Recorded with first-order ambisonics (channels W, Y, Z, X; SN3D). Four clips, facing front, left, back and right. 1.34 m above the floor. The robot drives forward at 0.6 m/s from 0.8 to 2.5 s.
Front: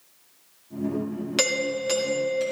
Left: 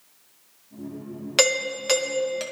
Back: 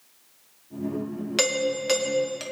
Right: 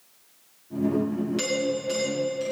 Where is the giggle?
No giggle in this recording.